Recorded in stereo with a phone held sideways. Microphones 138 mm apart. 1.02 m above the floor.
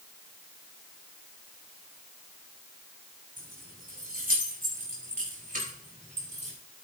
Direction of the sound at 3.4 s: 90° right.